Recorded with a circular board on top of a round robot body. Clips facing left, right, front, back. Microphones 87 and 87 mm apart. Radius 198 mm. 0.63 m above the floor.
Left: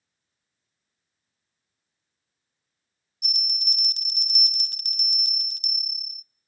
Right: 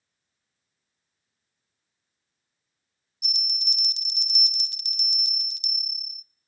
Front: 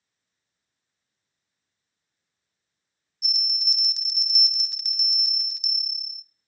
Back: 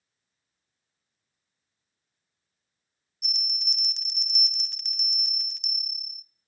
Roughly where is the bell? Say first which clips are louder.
Left 1 dB, front 2 dB; left.